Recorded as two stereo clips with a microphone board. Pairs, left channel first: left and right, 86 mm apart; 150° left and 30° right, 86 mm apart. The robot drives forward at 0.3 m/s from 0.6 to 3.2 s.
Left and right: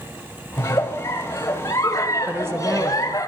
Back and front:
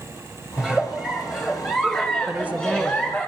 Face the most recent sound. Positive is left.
turn(degrees=-105)